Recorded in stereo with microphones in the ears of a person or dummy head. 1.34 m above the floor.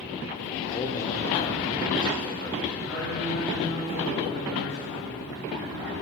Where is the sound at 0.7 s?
25° left (ahead or behind), 1.3 m.